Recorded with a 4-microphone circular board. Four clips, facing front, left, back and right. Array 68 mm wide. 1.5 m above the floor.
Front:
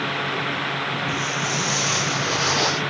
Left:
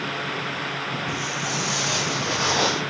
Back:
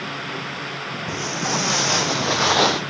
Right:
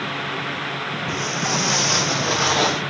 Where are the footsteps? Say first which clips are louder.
Right 4 dB, even; 140° right, 3.5 m; by 2.8 s straight behind, 2.5 m.